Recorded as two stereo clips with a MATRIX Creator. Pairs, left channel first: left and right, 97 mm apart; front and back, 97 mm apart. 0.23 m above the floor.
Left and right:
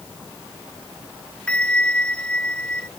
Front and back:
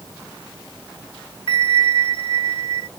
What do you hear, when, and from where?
1.5 s a bell: 10° left